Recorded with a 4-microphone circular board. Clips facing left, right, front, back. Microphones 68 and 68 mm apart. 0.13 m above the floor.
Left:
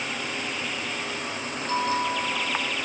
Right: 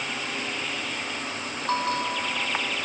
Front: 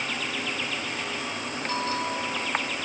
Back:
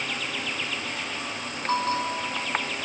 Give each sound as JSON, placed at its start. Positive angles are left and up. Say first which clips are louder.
{"t": 1.7, "sound": "a bell", "louder": "left 1 dB, back 4 dB", "azimuth_deg": -130, "distance_m": 1.4}